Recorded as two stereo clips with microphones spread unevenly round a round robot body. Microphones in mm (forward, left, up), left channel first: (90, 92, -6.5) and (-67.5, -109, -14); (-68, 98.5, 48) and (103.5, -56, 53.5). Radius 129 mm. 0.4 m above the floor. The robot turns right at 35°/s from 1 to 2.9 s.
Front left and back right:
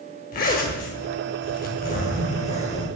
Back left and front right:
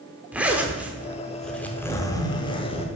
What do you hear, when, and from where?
0.3 s a zipper: 40° left, 0.8 m; by 2.9 s 105° left, 0.8 m